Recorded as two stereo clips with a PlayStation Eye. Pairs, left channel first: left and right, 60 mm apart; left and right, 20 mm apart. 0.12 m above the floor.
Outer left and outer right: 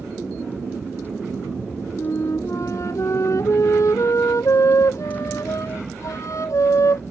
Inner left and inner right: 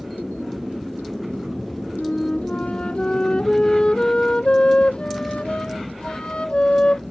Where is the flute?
60° left (ahead or behind).